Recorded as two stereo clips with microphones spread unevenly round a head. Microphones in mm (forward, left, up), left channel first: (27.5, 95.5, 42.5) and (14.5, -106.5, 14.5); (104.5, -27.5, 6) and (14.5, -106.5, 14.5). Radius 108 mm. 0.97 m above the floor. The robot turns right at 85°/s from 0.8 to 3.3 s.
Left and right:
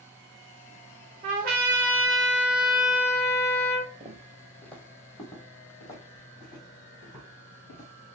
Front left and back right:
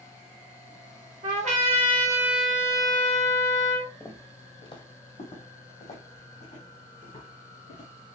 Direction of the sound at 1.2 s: 150° right.